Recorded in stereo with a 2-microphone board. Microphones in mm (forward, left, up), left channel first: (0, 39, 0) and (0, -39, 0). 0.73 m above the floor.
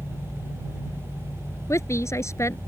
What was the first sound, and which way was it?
A woman speaking, 35° left (ahead or behind).